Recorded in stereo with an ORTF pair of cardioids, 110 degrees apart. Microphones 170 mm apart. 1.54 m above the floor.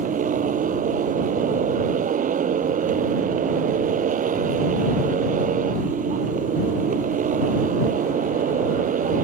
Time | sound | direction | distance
0.0 | a motorcycle | 50° right | ?